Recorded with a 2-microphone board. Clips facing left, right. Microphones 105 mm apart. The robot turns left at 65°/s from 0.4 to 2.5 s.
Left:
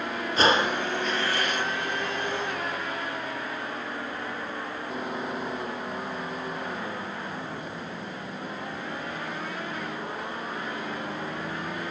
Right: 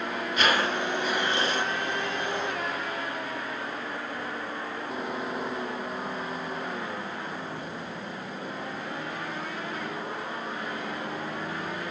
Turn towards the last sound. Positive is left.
turn(degrees=-100)